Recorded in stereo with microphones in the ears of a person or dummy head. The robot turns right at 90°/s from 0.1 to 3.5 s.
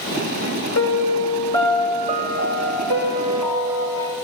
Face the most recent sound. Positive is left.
turn(degrees=-20)